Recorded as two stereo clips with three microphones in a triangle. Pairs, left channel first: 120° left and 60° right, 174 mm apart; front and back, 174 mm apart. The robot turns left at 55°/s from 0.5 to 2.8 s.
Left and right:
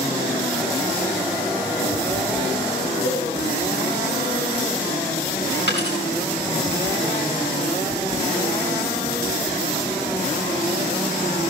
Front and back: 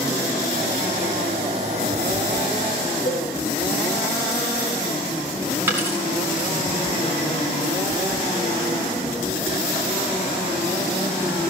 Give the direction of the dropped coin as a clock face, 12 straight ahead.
9 o'clock.